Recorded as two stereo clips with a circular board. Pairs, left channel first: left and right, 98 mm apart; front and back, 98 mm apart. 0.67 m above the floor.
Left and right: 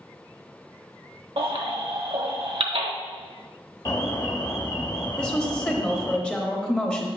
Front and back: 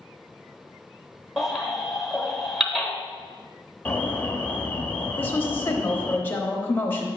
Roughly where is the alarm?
Ahead left.